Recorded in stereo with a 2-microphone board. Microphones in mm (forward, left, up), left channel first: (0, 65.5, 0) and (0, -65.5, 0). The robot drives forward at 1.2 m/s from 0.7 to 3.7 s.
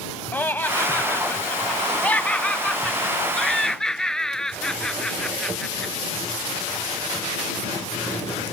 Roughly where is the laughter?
Centre.